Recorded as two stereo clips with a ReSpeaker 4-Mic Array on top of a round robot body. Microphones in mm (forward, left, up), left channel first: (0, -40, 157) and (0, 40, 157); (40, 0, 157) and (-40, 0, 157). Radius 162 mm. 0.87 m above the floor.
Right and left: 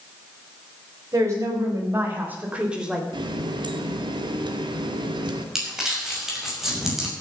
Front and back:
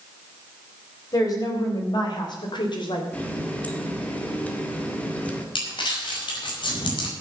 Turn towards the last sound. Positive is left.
turn(degrees=5)